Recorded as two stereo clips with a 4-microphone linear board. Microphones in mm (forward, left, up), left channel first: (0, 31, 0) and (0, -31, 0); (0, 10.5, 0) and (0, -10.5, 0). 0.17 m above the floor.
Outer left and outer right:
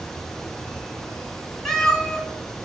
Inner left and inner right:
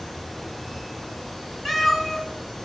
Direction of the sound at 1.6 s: 10° left (ahead or behind).